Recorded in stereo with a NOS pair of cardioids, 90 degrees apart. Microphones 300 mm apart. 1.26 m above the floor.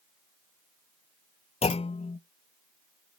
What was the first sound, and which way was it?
A clunk, 20° left.